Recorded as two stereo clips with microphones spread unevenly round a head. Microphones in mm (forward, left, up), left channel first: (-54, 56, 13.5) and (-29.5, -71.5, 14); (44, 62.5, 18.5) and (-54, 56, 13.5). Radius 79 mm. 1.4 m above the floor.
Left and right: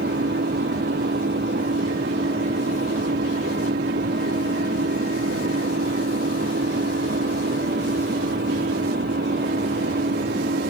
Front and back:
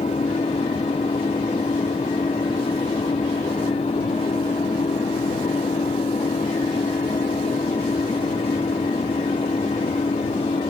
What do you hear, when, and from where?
0.0 s an engine running: 55° right